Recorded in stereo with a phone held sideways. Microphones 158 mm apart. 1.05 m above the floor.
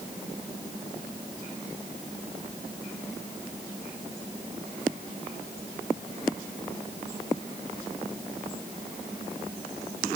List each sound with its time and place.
Only background noise.